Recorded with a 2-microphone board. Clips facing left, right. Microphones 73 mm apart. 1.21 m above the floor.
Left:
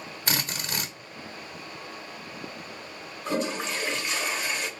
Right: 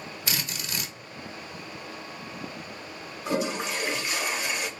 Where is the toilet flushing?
10° right (ahead or behind), 0.7 m.